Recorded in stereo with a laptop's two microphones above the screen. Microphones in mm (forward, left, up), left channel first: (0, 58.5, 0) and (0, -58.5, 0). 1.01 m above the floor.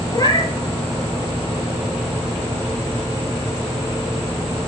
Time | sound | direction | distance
0.1 | a cat meowing | 35° left (ahead or behind) | 1.0 m